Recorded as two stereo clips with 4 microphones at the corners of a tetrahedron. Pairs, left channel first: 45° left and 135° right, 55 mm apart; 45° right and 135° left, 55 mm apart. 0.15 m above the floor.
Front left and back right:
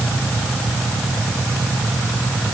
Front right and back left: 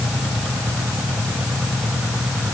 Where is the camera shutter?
I don't hear a camera shutter.